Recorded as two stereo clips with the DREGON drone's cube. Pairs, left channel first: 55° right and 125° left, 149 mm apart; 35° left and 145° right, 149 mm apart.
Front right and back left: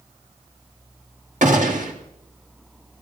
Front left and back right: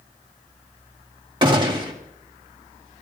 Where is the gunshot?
155° left, 1.8 m.